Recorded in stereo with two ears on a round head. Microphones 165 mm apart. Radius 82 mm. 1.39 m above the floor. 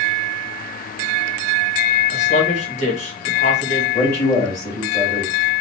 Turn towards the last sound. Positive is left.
turn(degrees=15)  # may be behind; listen again after turning